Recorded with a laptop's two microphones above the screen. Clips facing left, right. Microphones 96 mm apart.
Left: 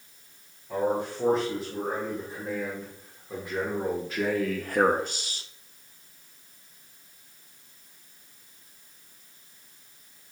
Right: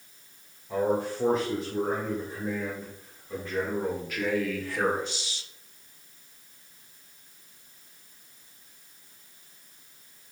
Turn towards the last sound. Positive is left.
turn(degrees=45)  # may be behind; listen again after turning